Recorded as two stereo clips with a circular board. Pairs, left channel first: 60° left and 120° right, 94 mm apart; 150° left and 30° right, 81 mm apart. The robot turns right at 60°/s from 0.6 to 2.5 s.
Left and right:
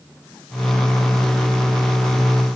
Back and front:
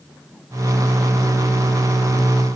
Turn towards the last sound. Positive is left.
No sound to turn to.